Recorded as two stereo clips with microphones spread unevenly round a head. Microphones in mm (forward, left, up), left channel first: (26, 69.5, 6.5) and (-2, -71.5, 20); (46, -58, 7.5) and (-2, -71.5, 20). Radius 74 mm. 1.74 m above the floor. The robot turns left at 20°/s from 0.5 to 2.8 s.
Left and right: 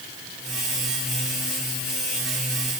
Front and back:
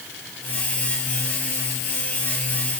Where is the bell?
No bell in this recording.